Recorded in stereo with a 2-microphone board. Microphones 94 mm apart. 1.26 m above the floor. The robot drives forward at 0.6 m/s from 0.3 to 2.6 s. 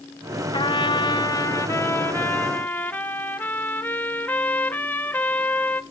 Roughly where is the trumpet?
Left.